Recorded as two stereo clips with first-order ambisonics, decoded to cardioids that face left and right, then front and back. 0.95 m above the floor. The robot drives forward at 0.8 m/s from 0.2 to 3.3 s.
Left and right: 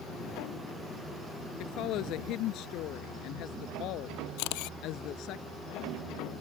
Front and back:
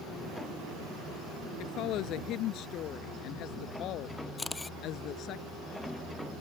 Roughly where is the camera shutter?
Left.